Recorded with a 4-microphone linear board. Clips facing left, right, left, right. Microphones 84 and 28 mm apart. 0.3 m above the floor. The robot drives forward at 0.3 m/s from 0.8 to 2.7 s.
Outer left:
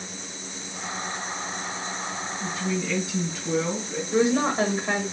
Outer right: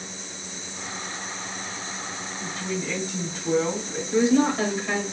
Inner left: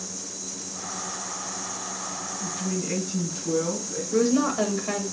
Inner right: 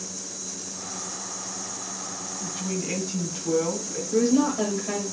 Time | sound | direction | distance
2.4 | a woman speaking | 40° right (ahead or behind) | 2 m
4.1 | a woman speaking | 25° left (ahead or behind) | 0.9 m